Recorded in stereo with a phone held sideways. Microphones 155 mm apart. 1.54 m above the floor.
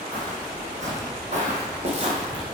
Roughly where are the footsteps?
Right.